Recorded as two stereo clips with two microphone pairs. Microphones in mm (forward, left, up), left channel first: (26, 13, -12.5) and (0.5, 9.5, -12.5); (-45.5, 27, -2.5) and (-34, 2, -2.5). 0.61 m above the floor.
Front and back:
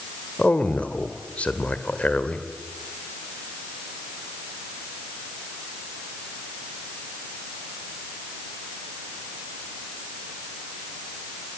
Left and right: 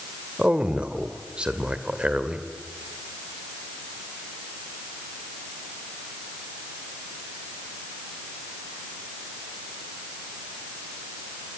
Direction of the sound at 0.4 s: 15° right.